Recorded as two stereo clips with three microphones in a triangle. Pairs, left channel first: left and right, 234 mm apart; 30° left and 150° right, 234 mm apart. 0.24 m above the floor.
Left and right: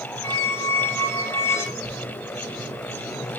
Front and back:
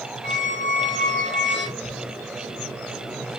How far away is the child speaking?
About 8 m.